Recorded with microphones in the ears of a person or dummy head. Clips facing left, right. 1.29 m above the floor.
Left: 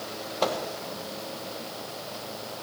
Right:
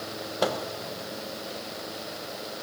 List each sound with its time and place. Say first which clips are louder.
0.4 s a microwave: even; 10° right (ahead or behind), 1.0 m